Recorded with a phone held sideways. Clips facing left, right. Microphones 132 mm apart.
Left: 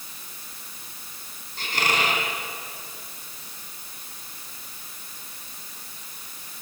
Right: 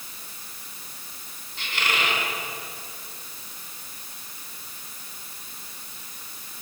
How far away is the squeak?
About 4 m.